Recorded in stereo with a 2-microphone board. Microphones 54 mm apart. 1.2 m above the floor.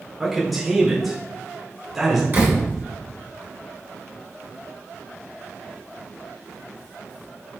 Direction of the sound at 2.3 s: 35° right (ahead or behind).